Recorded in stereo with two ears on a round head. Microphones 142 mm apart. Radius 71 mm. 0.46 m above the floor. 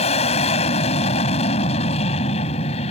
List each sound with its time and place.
0.0 s an aircraft: 40° left (ahead or behind)